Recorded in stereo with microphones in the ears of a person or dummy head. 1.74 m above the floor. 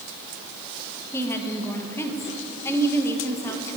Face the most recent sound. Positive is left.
turn(degrees=15)  # may be behind; listen again after turning